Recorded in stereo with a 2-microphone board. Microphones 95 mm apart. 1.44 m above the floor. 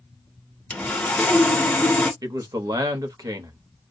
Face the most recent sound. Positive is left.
turn(degrees=-40)  # may be behind; listen again after turning